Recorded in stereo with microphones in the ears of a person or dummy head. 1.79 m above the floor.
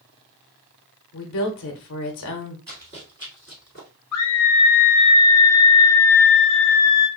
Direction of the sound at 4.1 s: 65° left (ahead or behind).